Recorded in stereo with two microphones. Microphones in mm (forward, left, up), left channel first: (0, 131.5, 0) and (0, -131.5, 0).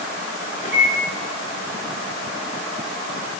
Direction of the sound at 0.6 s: 30° left (ahead or behind).